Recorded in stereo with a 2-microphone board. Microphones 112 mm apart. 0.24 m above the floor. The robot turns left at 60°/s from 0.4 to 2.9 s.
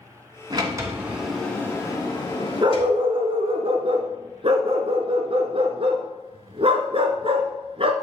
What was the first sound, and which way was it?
A sliding door, 130° right.